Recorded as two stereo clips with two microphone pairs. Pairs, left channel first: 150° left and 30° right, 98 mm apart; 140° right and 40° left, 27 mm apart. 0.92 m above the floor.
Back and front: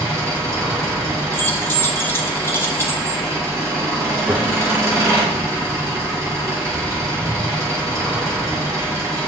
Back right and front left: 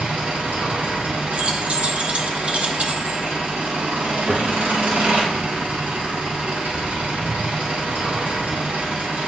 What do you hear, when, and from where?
0.0 s an engine running: 25° left, 2.5 m
1.3 s keys jangling: 80° left, 0.9 m
4.3 s a gunshot: 10° left, 1.1 m